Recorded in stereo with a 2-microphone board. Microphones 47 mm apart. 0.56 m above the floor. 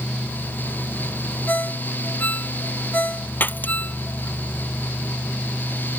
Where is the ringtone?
40° left (ahead or behind).